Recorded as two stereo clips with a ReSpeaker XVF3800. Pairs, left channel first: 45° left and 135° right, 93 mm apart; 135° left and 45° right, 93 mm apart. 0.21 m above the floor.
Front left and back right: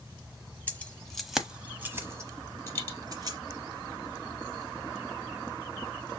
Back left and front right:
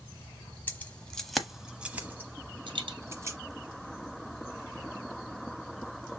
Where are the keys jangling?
90° left, 0.9 m; by 3.4 s 100° right, 1.6 m.